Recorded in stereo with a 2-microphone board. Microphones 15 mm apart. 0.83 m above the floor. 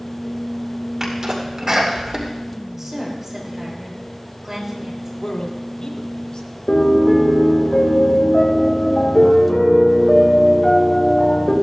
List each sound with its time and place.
1.0 s a sneeze: 45° right (ahead or behind), 2.5 m
2.8 s a woman speaking: 20° right (ahead or behind), 5.5 m
5.2 s a man speaking: 65° left (ahead or behind), 1.9 m
6.7 s a piano: 70° left (ahead or behind), 3.5 m